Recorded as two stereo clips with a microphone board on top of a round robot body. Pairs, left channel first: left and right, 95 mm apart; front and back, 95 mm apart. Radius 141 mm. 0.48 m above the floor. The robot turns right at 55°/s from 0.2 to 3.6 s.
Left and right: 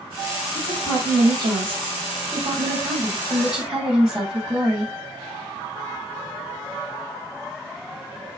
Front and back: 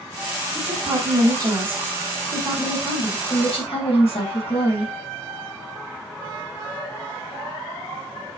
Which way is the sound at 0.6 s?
170° right.